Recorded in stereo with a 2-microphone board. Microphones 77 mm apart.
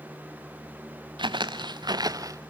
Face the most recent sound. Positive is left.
turn(degrees=-45)  # may be behind; listen again after turning